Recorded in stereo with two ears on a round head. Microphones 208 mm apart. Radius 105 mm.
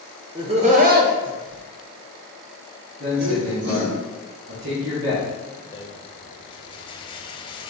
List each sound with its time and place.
0.3 s laughter: 20° right (ahead or behind), 0.8 m; by 3.9 s 85° right, 1.8 m
3.0 s a man speaking: 45° right (ahead or behind), 1.4 m
5.7 s a rattle: 20° left (ahead or behind), 0.6 m